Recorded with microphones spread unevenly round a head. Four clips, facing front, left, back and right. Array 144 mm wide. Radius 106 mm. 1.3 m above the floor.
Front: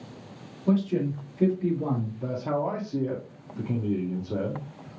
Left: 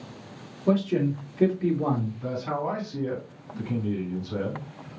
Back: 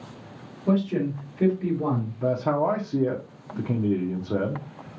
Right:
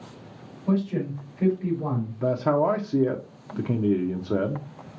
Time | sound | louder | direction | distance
0.7 | a man speaking | left 2 dB, back 1 dB | 115° left | 3 m
2.2 | a man speaking | right 7 dB, back 7 dB | 140° right | 0.9 m